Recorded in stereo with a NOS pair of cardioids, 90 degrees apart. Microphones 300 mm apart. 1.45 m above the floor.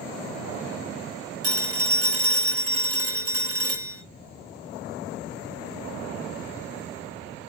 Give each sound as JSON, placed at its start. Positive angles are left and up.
{"t": 1.4, "sound": "a phone ringing", "azimuth_deg": -55, "distance_m": 2.0}